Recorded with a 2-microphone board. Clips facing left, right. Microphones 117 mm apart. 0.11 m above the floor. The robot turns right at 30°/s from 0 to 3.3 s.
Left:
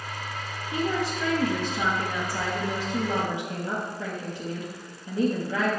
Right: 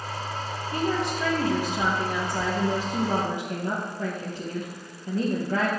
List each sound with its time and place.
0.7 s a woman speaking: 165° left, 3.5 m; by 5.7 s 120° right, 3.5 m